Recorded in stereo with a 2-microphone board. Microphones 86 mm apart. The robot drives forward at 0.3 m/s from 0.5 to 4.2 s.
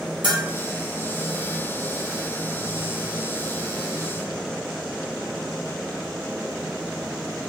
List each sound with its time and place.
0.2 s a bell: 60° right (ahead or behind), 0.9 m